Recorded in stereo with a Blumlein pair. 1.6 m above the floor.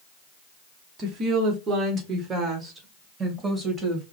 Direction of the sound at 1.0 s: 30° right.